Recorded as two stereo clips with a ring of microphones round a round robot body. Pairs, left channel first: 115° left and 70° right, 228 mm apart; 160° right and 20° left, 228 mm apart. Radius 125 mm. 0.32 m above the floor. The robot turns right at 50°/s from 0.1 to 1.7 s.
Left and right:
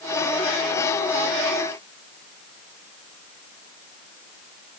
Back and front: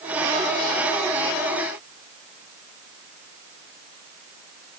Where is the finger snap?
No finger snap in this recording.